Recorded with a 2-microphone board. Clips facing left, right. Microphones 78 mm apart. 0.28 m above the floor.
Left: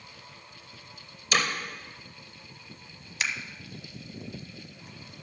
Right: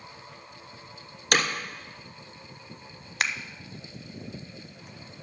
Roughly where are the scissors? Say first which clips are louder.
Right 3 dB; right.